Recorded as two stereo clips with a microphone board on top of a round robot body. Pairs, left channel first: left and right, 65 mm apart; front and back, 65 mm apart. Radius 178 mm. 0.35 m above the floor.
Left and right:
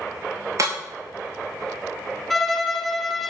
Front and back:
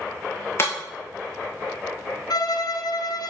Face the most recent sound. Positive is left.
turn(degrees=0)